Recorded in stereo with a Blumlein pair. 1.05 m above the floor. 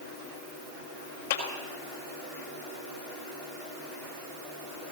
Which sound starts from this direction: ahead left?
A clap, at 1.3 s.